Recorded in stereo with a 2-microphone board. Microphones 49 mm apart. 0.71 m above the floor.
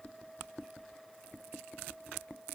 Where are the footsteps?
I don't hear footsteps.